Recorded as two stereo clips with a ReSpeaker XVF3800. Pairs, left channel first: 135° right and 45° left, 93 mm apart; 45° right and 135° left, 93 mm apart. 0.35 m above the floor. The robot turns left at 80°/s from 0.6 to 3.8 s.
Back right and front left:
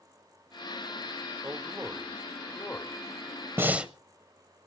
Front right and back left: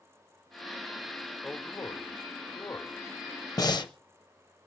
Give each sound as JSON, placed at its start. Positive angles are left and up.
{"t": 1.4, "sound": "a man speaking", "azimuth_deg": 15, "distance_m": 1.1}
{"t": 3.6, "sound": "breathing", "azimuth_deg": -10, "distance_m": 0.7}